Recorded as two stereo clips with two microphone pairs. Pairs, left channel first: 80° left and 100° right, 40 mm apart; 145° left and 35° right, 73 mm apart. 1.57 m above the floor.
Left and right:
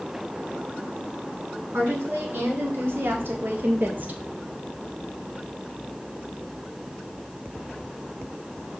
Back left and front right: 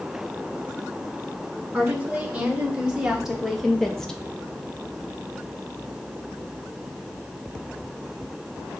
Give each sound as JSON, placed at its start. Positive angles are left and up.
{"t": 1.7, "sound": "a woman speaking", "azimuth_deg": -110, "distance_m": 1.8}